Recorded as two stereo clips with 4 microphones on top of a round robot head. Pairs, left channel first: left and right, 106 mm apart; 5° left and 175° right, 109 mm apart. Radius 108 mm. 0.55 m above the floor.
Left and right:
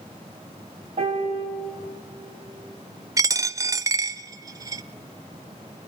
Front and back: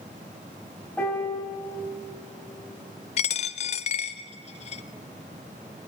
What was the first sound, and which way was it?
A piano, 75° right.